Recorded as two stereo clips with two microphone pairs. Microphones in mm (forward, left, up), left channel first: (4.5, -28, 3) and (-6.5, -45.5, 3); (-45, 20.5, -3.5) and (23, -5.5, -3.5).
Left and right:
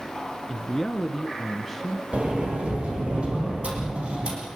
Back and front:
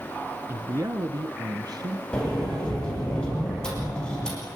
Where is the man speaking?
20° right, 1.2 m; by 2.0 s 25° right, 3 m.